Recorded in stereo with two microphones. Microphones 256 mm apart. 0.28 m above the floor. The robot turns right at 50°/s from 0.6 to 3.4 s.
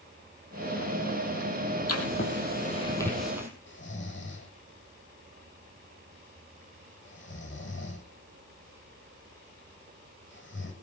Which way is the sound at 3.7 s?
45° left (ahead or behind).